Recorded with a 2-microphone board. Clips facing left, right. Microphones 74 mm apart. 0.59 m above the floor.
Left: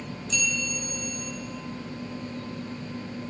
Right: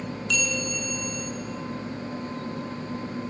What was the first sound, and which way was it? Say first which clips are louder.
A bell: right 2 dB; 70° right (ahead or behind).